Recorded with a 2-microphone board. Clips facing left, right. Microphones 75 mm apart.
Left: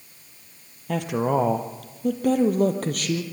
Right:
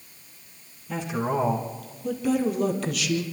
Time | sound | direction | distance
0.9 | a woman speaking | 70° left (ahead or behind) | 2.5 m